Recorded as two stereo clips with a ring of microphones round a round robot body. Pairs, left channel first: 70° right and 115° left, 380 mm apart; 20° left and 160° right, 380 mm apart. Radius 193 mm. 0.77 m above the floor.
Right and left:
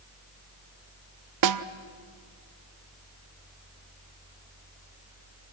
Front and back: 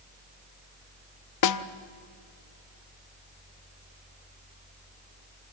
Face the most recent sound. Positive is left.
turn(degrees=70)